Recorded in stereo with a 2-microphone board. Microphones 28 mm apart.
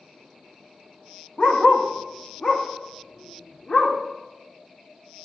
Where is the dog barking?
35° left (ahead or behind), 2.5 m.